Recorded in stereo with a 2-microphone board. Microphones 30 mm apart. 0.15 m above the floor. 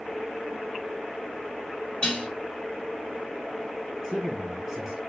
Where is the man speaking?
5° right (ahead or behind), 2.5 m.